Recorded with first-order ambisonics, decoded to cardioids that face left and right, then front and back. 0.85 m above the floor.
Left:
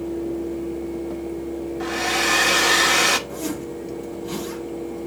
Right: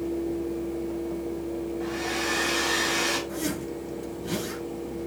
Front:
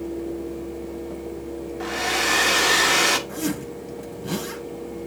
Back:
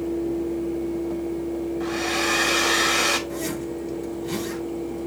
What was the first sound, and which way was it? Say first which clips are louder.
A hair dryer: left 9 dB, front 3 dB; 40° left.